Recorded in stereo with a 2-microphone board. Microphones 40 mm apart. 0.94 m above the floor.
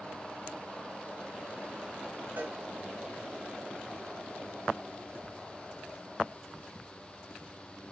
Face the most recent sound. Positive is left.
turn(degrees=-60)  # may be behind; listen again after turning